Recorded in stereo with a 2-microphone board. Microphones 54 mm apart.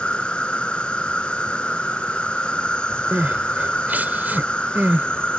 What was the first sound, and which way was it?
An insect, 20° left (ahead or behind).